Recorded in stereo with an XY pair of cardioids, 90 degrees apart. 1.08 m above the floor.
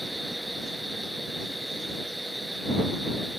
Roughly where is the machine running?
Ahead.